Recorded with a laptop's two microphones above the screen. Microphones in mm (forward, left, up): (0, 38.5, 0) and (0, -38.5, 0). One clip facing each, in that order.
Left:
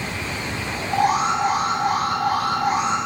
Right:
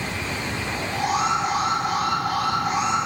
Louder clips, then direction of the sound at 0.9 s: Left 4 dB; 35° left (ahead or behind).